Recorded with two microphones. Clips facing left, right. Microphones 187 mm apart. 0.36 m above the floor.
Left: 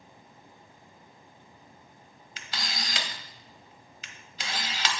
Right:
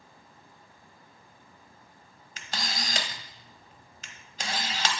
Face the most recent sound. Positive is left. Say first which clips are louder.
# right 2 dB
turn(degrees=-50)  # may be behind; listen again after turning